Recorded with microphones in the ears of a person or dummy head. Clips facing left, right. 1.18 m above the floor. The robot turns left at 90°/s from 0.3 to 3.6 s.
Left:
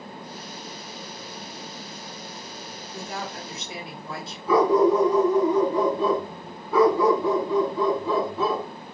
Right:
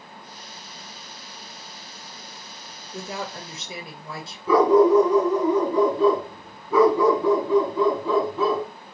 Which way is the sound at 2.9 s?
55° right.